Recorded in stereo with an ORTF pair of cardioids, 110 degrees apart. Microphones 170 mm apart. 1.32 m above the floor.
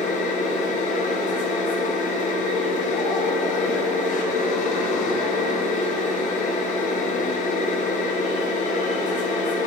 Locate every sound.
0.0 s a machine running: 45° left, 1.7 m